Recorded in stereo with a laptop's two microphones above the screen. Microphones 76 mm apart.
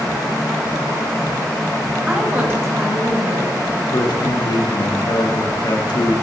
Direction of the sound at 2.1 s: 10° right (ahead or behind).